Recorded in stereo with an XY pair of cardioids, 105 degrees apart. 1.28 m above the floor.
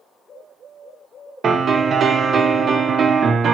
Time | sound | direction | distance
1.4 | a piano | 50° right | 1.0 m